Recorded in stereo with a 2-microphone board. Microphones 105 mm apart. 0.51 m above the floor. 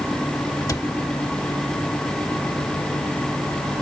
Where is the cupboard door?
35° left (ahead or behind).